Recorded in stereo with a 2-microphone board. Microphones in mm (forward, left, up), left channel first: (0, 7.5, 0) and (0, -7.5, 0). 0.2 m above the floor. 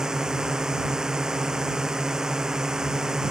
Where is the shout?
No shout in this recording.